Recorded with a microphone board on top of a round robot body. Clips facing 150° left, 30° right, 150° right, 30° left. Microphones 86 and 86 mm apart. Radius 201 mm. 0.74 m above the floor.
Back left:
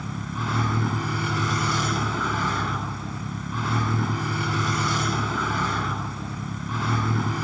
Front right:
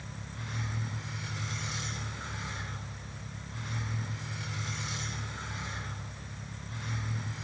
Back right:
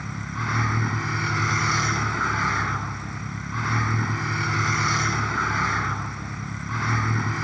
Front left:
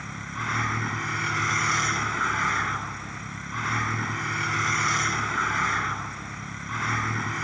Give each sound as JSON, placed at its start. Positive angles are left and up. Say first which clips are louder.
{"t": 0.0, "sound": "a vehicle", "louder": "back left 14 dB, back right 2 dB", "azimuth_deg": 125}